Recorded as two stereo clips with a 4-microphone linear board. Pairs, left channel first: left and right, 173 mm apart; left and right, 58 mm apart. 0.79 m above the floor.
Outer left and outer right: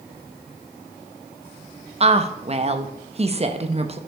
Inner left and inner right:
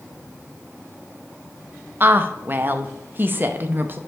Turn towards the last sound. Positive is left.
turn(degrees=-35)  # may be behind; listen again after turning